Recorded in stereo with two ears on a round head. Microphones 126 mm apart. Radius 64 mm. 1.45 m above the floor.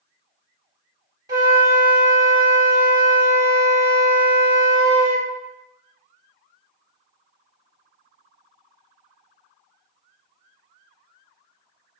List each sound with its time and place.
1.3 s a flute: 30° right (ahead or behind), 1.2 m